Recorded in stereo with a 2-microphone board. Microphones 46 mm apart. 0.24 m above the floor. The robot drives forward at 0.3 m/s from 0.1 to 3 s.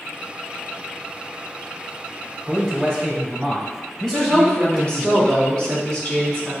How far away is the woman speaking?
About 1.7 m.